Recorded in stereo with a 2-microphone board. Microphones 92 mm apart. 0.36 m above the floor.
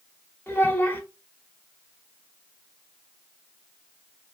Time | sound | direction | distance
0.5 | a child speaking | 25° left (ahead or behind) | 0.8 m